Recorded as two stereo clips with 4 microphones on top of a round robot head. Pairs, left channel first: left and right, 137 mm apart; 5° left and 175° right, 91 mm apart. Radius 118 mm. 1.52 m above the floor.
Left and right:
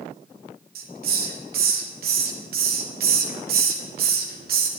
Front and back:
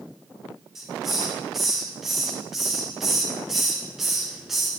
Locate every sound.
0.8 s a hiss: 90° right, 2 m